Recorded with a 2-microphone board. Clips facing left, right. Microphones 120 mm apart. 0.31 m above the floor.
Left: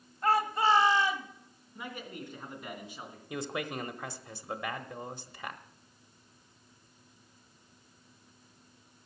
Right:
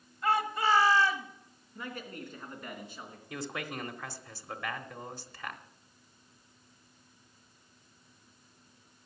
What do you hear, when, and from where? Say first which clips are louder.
0.2 s a shout: left 2 dB; 40° left (ahead or behind), 1.3 m; by 1.3 s 15° left (ahead or behind), 1.6 m
1.8 s a man speaking: even; 15° left (ahead or behind), 3 m
3.3 s a man speaking: left 3 dB; 20° left (ahead or behind), 0.9 m